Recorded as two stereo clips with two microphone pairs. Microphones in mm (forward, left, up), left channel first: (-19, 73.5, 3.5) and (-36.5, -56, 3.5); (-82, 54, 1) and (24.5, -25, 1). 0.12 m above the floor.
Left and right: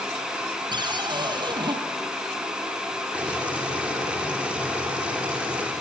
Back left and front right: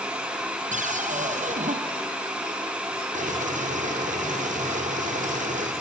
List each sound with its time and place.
0.7 s a cupboard door: 45° right, 2.5 m
3.1 s boiling: 15° right, 7.5 m